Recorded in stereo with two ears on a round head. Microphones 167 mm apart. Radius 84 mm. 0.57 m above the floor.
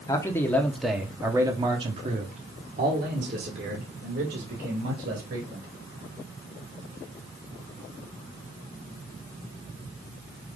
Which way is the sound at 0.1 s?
20° left (ahead or behind).